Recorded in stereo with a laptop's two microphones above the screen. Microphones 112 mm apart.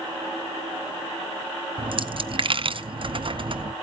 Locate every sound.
1.8 s a dropped coin: 50° right (ahead or behind), 0.7 m